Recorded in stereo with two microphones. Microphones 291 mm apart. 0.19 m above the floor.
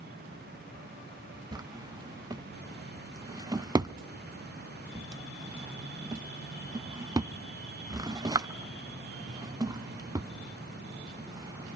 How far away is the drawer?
About 0.5 m.